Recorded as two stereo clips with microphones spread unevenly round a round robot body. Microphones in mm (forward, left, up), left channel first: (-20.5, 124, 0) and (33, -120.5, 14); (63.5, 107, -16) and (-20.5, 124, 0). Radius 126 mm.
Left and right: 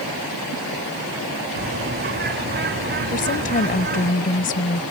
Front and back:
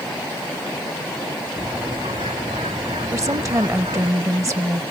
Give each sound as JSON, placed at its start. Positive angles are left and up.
{"t": 1.6, "sound": "a bird", "azimuth_deg": -130}
{"t": 3.1, "sound": "a woman speaking", "azimuth_deg": 125}